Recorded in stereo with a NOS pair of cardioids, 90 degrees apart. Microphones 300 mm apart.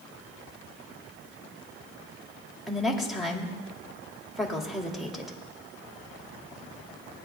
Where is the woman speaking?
Straight ahead, 2.5 m.